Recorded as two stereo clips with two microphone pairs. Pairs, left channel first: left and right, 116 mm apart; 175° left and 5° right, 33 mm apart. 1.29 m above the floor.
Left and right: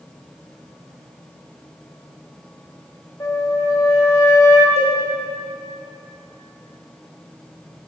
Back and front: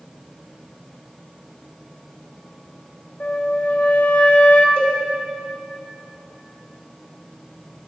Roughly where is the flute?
Behind left.